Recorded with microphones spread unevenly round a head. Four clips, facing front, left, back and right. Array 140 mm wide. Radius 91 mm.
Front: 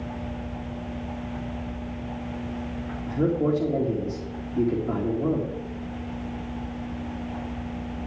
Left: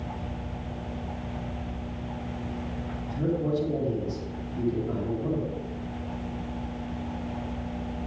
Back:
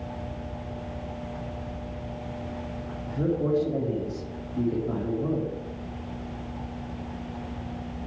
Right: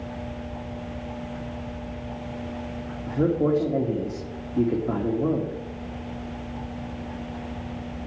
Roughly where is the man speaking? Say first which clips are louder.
Right 6 dB, front 3 dB; ahead right.